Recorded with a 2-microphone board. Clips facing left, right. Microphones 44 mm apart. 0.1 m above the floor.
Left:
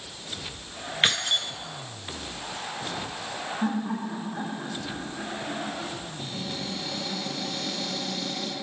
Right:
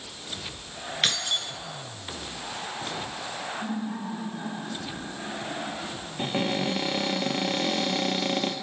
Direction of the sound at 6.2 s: 50° right (ahead or behind).